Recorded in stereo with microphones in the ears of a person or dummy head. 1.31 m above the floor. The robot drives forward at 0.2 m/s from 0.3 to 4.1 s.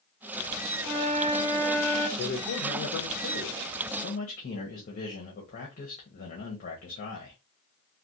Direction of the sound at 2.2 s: 55° left (ahead or behind).